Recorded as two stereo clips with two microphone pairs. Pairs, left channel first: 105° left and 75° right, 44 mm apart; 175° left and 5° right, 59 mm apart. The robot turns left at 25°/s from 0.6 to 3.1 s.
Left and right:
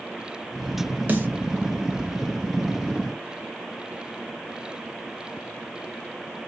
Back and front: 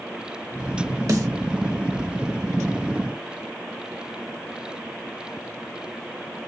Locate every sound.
1.1 s a snare drum: 25° right, 0.9 m; by 1.3 s 30° right, 0.9 m